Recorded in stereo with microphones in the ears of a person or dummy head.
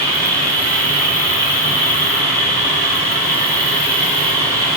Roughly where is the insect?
Right.